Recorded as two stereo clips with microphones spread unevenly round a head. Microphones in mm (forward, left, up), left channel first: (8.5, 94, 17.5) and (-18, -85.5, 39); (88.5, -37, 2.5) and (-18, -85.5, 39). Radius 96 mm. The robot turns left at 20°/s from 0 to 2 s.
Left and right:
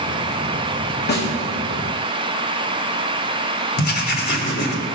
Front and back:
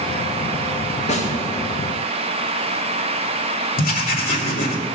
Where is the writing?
40° left, 2 m.